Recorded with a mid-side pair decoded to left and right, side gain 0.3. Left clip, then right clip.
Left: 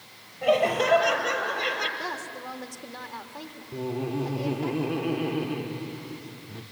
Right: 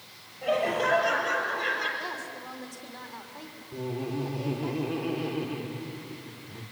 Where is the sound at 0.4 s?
60° left, 7 m.